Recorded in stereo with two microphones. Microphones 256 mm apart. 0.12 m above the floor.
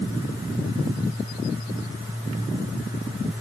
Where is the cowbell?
No cowbell in this recording.